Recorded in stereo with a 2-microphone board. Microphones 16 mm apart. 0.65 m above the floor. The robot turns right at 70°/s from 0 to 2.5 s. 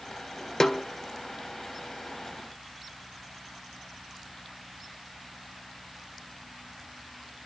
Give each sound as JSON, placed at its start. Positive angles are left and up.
{"t": 0.6, "sound": "a snare drum", "side_deg": 40, "distance_m": 1.0}